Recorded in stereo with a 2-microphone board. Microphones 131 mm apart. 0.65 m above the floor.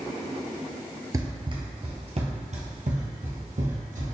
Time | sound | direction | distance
1.1 | running footsteps | 25° right (ahead or behind) | 0.8 m